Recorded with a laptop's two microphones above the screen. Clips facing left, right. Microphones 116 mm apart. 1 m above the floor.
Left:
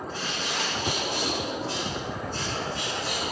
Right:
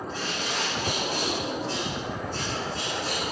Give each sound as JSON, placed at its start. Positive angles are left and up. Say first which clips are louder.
{"t": 0.1, "sound": "a bird", "louder": "right 2 dB", "side_deg": -35, "distance_m": 5.0}